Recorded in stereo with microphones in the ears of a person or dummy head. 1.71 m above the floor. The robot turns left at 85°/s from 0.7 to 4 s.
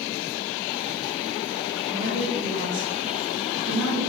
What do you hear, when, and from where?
1.9 s a woman speaking: 10° right, 1.8 m; by 4.1 s 175° left, 1.8 m